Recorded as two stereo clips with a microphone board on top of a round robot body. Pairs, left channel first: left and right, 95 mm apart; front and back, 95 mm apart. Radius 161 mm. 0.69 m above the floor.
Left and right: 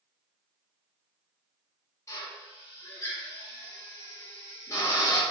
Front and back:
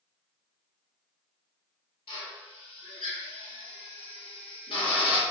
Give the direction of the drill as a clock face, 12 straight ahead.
11 o'clock.